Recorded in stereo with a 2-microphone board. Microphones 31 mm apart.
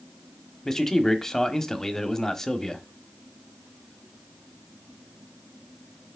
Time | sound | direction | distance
0.7 | a man speaking | 15° left (ahead or behind) | 1.0 m